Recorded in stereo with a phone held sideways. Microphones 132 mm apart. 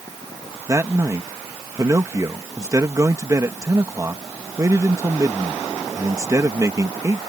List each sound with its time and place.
0.7 s a man speaking: 25° right (ahead or behind)